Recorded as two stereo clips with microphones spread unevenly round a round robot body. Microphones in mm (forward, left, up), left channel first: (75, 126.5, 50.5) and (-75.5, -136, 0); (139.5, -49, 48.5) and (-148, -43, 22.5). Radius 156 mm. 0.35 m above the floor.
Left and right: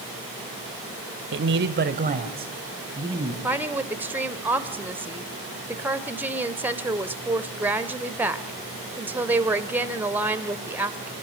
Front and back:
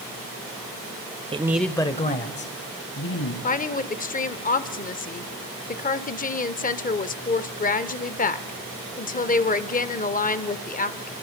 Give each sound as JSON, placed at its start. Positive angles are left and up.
{"t": 1.3, "sound": "a man speaking", "azimuth_deg": -125, "distance_m": 1.2}
{"t": 3.4, "sound": "a woman speaking", "azimuth_deg": -55, "distance_m": 1.0}